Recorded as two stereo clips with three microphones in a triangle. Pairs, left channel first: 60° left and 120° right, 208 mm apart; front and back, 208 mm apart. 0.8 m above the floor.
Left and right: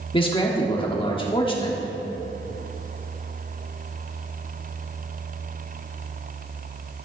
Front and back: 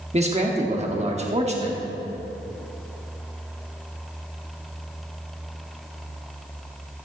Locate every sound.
0.1 s a man speaking: 120° left, 1.3 m